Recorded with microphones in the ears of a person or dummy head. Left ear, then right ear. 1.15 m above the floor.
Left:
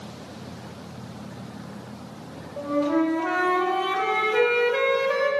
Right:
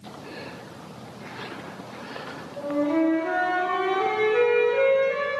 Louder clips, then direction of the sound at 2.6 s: Left 1 dB; 35° left (ahead or behind).